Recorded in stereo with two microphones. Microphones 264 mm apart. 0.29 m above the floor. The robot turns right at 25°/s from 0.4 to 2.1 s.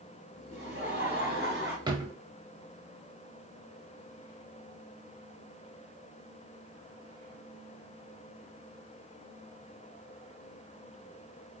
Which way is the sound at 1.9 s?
20° right (ahead or behind).